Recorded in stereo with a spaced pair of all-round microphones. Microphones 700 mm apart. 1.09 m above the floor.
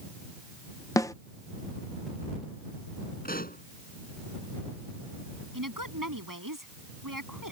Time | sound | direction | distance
1.0 | a snare drum | 5° left (ahead or behind) | ?
3.2 | a pop | 10° left (ahead or behind) | ?
5.5 | a woman speaking | 25° right (ahead or behind) | ?